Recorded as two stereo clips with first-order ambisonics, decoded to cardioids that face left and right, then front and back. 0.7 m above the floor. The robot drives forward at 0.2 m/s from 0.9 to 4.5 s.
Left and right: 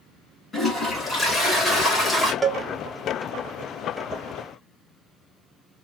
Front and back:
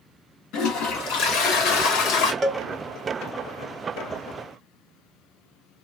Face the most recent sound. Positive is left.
turn(degrees=-170)